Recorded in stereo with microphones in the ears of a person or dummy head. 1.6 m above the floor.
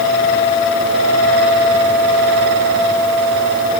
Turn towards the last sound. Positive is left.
No sound to turn to.